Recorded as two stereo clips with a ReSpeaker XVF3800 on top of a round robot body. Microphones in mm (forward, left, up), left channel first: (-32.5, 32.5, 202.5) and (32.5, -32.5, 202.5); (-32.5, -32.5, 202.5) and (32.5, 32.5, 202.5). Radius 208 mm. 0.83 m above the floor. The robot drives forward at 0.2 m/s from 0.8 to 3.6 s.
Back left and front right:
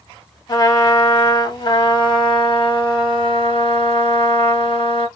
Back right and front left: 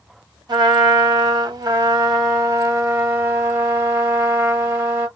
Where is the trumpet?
90° left, 1.3 m; by 5.1 s 110° left, 1.4 m.